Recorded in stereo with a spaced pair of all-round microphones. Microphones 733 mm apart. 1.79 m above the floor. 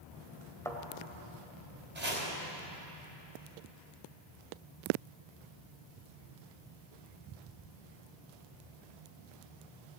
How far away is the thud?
About 1.6 m.